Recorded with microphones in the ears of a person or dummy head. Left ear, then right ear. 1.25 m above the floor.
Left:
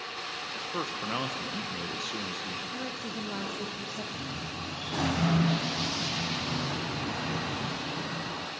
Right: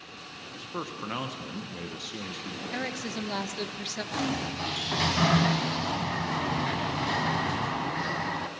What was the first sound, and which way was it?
A man speaking, 5° left (ahead or behind).